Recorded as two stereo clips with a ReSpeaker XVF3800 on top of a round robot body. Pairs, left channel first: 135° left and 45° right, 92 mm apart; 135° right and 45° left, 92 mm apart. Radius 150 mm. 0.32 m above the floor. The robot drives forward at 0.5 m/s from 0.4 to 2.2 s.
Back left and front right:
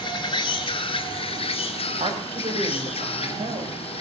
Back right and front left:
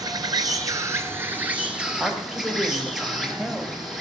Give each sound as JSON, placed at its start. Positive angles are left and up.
{"t": 0.0, "sound": "an insect", "azimuth_deg": 95, "distance_m": 1.1}
{"t": 2.0, "sound": "a woman speaking", "azimuth_deg": -40, "distance_m": 3.0}